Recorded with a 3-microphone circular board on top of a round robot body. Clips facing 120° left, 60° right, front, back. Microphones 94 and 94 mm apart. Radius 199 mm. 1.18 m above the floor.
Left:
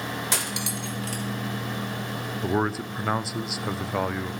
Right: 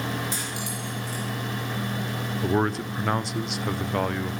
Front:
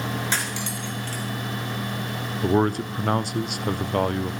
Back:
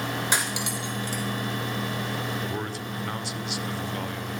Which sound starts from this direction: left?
Cutlery clinking, at 0.3 s.